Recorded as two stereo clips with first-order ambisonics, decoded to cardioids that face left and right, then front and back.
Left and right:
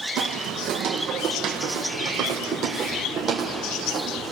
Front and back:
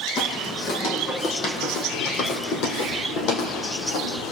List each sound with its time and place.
0.2 s footsteps: 55° right, 4 m; by 4.3 s 20° right, 4 m